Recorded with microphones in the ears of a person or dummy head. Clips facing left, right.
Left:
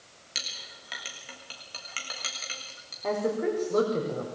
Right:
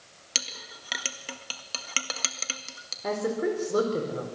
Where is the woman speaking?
5° right (ahead or behind), 4.5 m.